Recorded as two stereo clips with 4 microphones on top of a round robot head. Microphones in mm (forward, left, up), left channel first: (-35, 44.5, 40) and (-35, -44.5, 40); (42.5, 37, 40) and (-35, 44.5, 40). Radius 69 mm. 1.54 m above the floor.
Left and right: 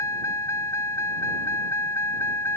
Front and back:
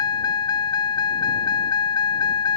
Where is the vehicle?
25° left; by 2.6 s 20° left.